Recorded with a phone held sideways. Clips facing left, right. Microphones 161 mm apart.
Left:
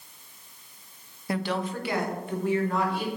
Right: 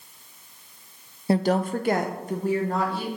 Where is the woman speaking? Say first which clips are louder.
Right 7 dB; 30° right (ahead or behind), 0.5 m; by 3.1 s 35° right (ahead or behind), 2 m.